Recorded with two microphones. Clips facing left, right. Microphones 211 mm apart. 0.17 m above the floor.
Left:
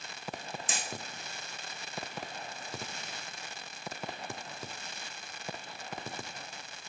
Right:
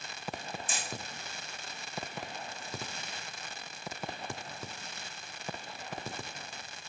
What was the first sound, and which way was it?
Hammering, 85° left.